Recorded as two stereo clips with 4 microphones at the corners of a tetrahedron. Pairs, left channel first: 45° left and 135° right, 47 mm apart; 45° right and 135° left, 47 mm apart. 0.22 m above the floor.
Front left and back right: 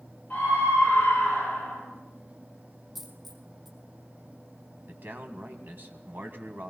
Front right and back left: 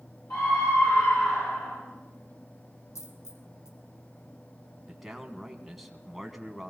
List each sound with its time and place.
0.3 s a scream: 20° right, 6.5 m
3.0 s a dropped coin: 50° right, 1.8 m
4.9 s a man speaking: 140° right, 1.6 m